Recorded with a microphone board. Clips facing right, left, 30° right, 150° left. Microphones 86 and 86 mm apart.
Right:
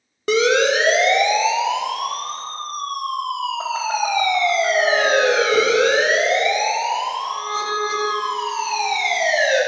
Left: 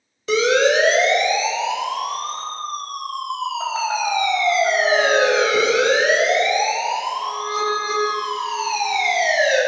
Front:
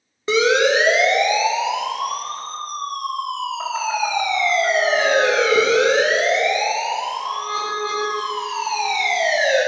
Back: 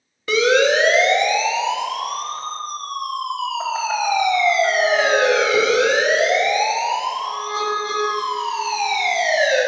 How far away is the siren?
About 2.5 m.